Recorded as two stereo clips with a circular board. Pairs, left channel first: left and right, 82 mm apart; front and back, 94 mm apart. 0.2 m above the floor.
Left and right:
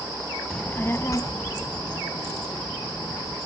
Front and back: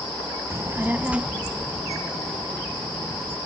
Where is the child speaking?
160° left, 0.6 m; by 3.4 s 80° left, 2 m.